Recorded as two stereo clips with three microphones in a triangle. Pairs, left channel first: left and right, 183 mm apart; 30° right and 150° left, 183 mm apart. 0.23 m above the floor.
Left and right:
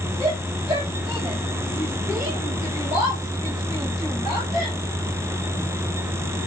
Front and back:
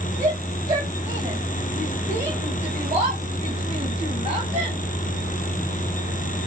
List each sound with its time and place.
0.2 s a shout: 165° right, 7 m; by 4.8 s 160° right, 4.5 m